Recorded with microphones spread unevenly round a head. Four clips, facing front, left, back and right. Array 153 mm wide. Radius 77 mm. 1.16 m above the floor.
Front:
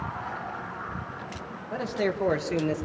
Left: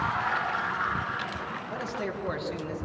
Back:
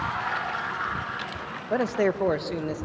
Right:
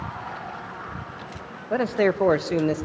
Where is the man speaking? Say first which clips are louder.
Right 14 dB, back 5 dB; 125° right, 0.8 m; by 2.9 s 70° right, 0.9 m.